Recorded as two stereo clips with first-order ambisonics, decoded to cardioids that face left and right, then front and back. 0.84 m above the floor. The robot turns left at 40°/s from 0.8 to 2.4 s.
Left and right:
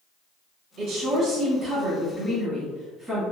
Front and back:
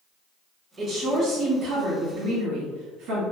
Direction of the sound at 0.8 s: 110° right.